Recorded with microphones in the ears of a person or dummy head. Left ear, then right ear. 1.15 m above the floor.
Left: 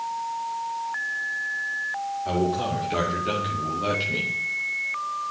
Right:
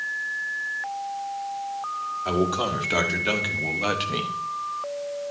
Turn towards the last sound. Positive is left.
turn(degrees=-30)  # may be behind; listen again after turning